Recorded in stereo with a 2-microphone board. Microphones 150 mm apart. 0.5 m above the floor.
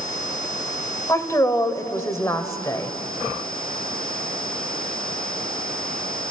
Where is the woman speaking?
20° left (ahead or behind), 1.6 m.